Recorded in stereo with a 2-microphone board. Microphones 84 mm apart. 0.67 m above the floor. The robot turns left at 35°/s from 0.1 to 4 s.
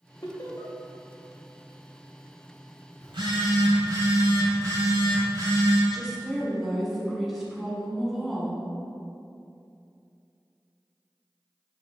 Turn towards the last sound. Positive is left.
turn(degrees=-5)  # may be behind; listen again after turning